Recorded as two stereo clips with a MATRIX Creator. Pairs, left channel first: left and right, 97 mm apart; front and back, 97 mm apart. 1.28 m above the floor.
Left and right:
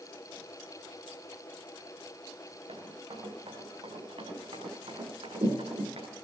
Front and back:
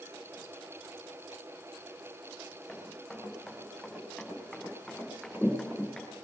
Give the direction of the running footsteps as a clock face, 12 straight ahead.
3 o'clock.